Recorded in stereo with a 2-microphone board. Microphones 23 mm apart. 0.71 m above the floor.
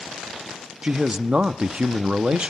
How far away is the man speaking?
About 0.6 m.